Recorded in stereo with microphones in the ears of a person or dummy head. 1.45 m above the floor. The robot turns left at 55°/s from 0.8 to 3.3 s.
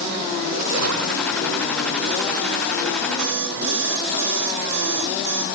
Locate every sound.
0.5 s a splash: 90° right, 1.7 m; by 1.4 s 125° right, 1.7 m
3.2 s an alarm clock: 55° right (ahead or behind), 3 m; by 5.5 s 50° right (ahead or behind), 3 m